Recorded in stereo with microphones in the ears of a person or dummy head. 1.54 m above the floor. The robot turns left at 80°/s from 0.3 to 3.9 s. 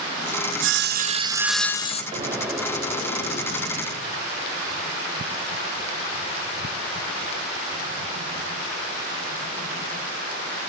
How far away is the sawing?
About 0.7 m.